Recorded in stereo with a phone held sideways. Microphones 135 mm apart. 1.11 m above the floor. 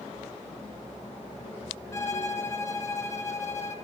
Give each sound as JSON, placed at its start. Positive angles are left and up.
{"t": 1.9, "sound": "a violin", "side_deg": 20, "distance_m": 0.9}